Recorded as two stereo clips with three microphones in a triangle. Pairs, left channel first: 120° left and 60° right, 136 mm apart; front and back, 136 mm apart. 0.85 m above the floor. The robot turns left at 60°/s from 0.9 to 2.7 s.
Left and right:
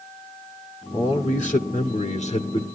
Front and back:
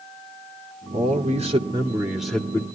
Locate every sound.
0.9 s a man speaking: 170° left, 2 m; by 2.6 s 70° left, 2 m